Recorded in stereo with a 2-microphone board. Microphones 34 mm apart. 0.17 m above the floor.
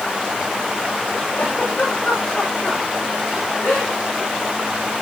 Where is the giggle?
35° left (ahead or behind), 9.5 m.